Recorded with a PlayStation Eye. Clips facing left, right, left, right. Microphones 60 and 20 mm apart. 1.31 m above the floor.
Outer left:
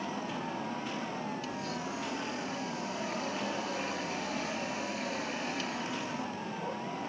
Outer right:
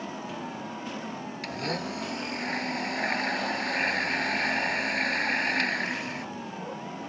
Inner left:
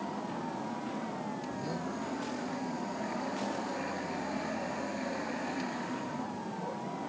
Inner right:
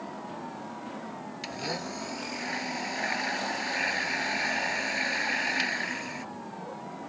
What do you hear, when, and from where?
1.4 s a blender: 55° right (ahead or behind)